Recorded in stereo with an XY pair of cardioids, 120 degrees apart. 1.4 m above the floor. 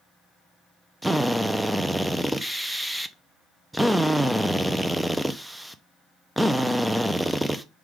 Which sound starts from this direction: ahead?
A drill, at 1.0 s.